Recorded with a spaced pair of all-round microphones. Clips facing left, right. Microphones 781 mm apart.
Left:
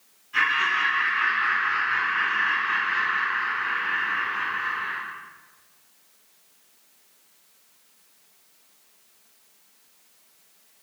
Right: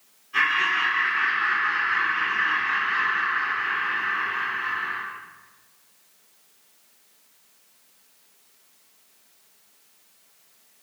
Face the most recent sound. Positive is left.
turn(degrees=90)